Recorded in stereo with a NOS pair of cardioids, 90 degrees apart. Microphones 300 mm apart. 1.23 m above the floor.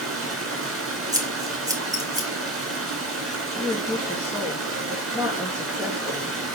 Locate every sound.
0.0 s running water: 50° right, 4.5 m
1.1 s scissors: 10° right, 3 m
3.6 s a woman speaking: 10° right, 2.0 m